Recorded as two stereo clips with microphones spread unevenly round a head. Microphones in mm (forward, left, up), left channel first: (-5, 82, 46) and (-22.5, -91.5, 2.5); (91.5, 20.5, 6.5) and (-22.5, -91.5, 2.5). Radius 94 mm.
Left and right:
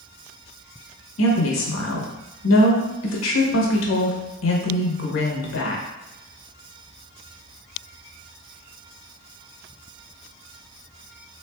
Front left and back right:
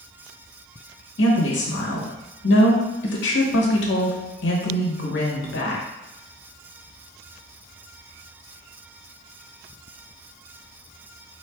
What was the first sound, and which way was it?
A woman speaking, 65° left.